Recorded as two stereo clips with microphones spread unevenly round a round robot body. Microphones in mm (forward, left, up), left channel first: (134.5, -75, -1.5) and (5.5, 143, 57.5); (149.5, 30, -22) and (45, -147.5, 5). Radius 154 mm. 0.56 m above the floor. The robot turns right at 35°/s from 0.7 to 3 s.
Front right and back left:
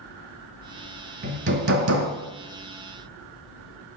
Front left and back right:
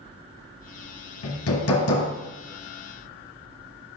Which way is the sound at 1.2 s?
70° left.